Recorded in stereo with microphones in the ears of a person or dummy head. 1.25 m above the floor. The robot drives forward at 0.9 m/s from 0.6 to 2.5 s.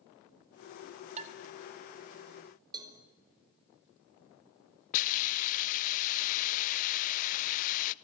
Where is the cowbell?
25° right (ahead or behind), 2.5 m.